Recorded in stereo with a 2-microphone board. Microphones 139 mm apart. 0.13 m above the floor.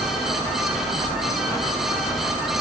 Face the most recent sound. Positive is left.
No sound to turn to.